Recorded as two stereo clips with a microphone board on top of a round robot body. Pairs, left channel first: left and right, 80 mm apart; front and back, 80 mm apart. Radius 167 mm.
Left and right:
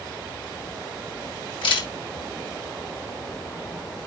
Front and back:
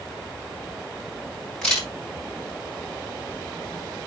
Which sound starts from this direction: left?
A camera shutter, at 1.6 s.